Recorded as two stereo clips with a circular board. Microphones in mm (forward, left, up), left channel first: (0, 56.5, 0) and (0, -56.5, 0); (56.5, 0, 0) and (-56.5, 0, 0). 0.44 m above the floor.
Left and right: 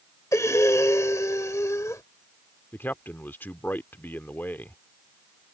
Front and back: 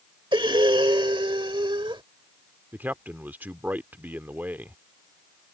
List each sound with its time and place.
0.3 s breathing: 150° left
2.7 s a man speaking: 135° left